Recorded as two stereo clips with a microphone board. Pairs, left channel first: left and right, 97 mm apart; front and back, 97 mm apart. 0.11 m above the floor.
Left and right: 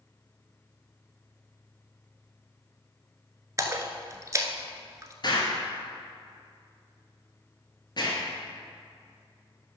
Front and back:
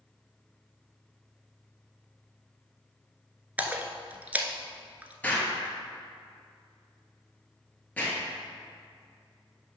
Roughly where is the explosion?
Left.